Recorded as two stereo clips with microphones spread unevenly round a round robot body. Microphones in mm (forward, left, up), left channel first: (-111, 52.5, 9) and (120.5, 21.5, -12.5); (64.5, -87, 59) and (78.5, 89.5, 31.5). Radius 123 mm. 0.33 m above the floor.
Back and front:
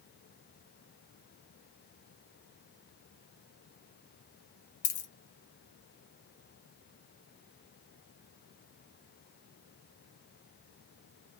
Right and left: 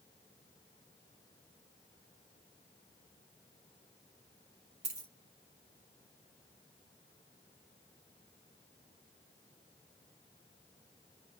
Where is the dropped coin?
145° left, 0.9 m.